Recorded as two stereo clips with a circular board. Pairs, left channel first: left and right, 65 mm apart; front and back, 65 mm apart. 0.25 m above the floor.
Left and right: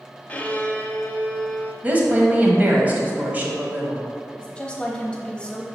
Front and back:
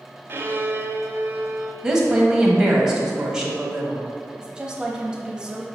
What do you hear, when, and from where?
0.3 s a violin: 150° left, 0.6 m
1.8 s a woman speaking: 110° right, 1.2 m
4.4 s a woman speaking: 130° left, 1.0 m